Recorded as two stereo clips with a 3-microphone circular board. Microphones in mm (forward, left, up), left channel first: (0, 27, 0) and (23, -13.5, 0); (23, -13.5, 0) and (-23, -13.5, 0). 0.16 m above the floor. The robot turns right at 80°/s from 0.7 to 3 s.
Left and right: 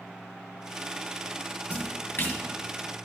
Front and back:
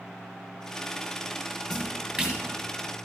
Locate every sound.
1.7 s a splash: 85° left, 1.8 m; by 2.4 s 145° left, 1.8 m